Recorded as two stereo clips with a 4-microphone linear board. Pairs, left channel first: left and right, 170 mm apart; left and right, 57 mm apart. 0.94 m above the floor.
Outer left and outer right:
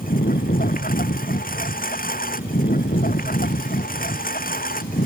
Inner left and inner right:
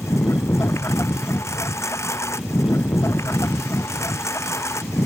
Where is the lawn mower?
55° left (ahead or behind).